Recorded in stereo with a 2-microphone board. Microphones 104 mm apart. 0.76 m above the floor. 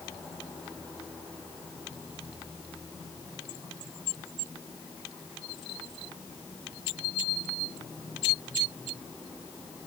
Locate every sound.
Only background noise.